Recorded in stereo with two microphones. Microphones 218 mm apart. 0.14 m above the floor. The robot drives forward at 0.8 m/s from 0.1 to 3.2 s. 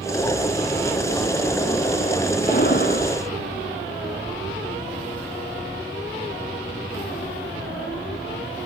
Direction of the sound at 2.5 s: 50° left (ahead or behind).